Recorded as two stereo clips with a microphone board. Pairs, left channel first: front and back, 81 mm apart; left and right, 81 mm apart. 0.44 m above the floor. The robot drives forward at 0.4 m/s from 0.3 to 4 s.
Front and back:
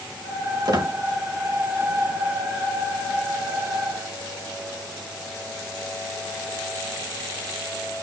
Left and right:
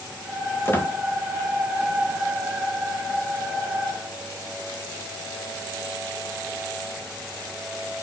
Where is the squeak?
150° left, 2.0 m.